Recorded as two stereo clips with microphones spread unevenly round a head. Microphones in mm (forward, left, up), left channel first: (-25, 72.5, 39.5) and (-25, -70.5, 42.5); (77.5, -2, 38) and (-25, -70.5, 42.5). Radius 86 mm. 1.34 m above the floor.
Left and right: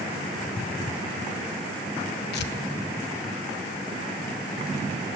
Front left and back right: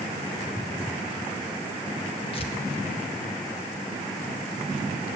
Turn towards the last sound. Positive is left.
turn(degrees=90)